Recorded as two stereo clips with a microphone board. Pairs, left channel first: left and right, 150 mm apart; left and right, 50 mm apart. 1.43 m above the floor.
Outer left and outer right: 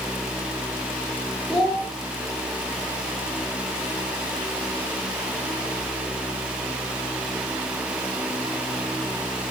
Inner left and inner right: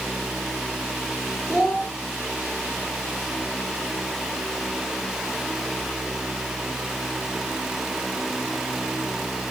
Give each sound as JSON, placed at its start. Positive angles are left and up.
{"t": 1.5, "sound": "a child speaking", "side_deg": 5, "distance_m": 3.5}